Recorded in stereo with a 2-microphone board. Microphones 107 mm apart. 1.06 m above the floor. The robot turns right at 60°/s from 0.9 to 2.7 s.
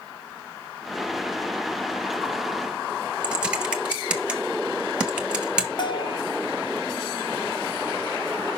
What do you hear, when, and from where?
3.2 s typing on a keyboard: 10° right (ahead or behind), 1.4 m
5.8 s a bell: 50° left (ahead or behind), 0.7 m